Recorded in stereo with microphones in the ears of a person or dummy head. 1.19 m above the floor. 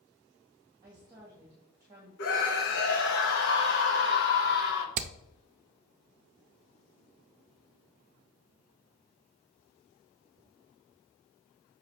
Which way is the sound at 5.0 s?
40° right (ahead or behind).